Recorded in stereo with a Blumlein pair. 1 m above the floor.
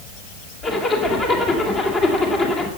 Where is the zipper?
25° left, 3 m.